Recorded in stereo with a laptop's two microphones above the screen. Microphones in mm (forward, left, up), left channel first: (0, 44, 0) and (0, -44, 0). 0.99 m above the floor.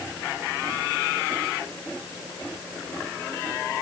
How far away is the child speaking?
I don't hear a child speaking.